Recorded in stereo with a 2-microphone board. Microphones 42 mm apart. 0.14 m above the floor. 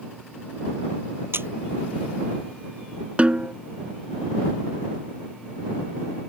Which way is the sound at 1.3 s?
70° right (ahead or behind).